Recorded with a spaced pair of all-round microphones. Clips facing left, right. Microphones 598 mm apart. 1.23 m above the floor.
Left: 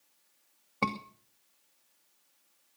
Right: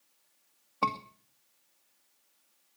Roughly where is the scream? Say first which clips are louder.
Left 3 dB; left.